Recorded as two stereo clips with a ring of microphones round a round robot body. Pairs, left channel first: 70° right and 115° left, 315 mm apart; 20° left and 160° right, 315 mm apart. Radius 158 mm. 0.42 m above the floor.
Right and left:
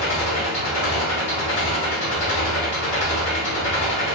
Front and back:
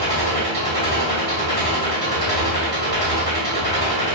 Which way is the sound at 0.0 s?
35° right.